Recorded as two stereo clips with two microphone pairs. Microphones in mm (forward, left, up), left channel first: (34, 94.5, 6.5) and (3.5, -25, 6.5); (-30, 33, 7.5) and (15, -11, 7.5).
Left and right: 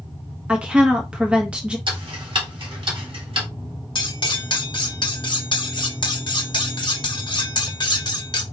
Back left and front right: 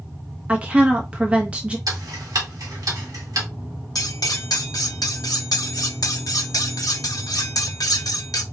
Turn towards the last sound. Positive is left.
turn(degrees=125)